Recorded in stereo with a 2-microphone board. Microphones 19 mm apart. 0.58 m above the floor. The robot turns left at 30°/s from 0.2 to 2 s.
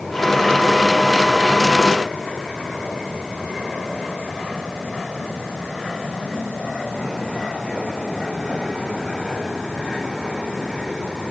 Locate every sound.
Only background noise.